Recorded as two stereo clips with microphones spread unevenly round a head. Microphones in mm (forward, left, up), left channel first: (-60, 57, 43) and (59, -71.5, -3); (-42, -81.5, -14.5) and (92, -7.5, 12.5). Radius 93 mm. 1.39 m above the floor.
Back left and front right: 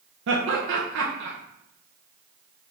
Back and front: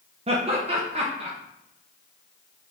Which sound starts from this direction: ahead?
Laughter, at 0.3 s.